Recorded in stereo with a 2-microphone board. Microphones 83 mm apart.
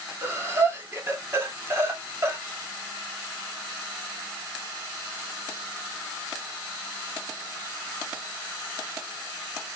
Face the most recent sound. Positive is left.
turn(degrees=-30)  # may be behind; listen again after turning